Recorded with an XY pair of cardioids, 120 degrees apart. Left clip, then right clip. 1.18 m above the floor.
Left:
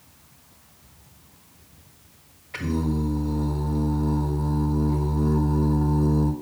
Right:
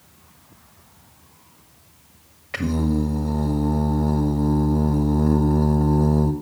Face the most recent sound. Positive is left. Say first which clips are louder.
# right 4 dB
turn(degrees=-65)